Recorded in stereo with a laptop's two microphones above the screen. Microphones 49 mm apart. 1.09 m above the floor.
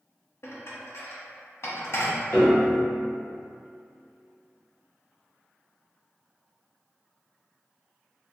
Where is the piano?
50° left (ahead or behind), 1.7 m.